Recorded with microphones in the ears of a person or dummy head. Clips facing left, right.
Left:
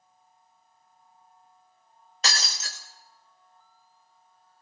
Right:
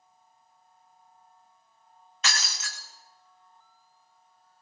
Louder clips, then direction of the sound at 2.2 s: Left 1 dB; 35° left (ahead or behind).